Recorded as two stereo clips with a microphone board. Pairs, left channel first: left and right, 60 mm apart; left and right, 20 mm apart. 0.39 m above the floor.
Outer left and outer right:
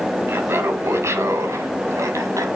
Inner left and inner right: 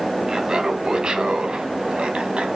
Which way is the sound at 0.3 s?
45° right (ahead or behind).